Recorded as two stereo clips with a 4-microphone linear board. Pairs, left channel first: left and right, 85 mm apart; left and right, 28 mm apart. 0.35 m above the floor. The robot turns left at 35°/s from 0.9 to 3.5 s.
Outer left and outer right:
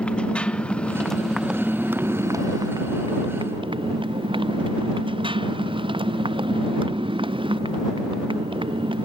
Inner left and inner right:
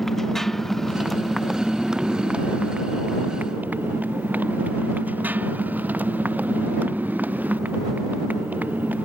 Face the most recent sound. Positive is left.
turn(degrees=-80)